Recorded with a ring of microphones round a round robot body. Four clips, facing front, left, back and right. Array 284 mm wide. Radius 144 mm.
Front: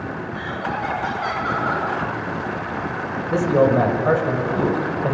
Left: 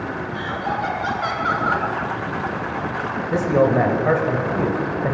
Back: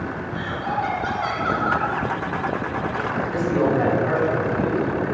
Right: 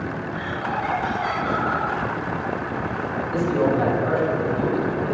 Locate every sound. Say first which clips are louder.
0.3 s laughter: left 2 dB, back 2 dB; 90° left, 10 m
3.3 s a man speaking: left 4 dB, front 5 dB; 45° left, 4.5 m